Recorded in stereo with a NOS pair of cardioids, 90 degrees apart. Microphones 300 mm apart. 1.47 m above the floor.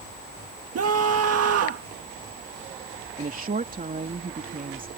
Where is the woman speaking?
30° right.